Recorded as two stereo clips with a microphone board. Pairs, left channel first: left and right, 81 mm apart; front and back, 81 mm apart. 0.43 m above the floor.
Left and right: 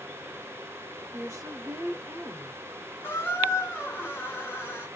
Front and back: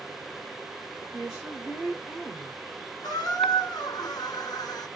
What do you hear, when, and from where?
1.1 s a woman speaking: 95° right, 0.9 m
3.0 s a squeak: 30° left, 1.2 m